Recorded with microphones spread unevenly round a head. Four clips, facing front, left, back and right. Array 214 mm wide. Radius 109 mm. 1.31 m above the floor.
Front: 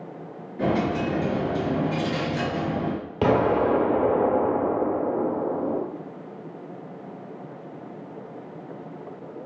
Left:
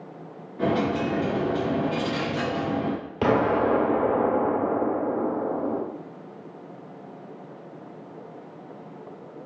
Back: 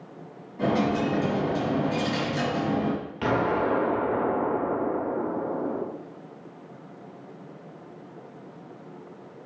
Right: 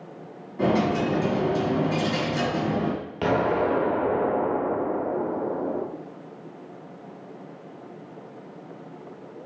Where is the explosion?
10° left, 1.2 m.